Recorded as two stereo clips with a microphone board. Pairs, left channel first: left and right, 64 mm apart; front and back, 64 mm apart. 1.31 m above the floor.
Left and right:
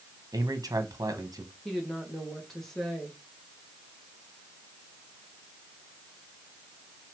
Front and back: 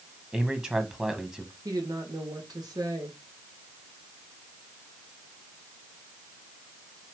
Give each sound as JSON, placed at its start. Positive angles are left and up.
{"t": 0.3, "sound": "a man speaking", "azimuth_deg": -105, "distance_m": 1.5}
{"t": 1.6, "sound": "a woman speaking", "azimuth_deg": 175, "distance_m": 1.8}